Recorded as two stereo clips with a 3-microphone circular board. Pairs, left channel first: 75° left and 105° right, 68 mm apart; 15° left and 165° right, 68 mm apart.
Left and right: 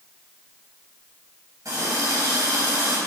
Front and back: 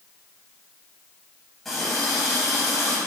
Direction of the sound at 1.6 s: 70° right.